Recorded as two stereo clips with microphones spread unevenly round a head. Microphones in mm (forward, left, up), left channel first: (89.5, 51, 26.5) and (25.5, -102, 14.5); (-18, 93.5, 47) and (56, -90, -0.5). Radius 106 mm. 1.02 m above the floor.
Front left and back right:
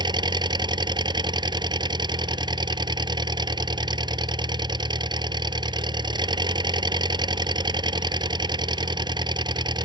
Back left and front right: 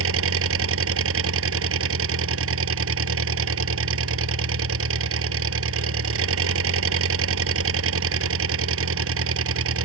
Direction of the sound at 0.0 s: 50° right.